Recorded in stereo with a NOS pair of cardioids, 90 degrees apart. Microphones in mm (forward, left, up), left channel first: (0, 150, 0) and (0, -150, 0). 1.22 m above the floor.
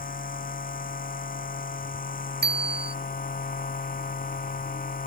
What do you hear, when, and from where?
0.0 s a machine running: 30° left
2.4 s a bicycle bell: 35° right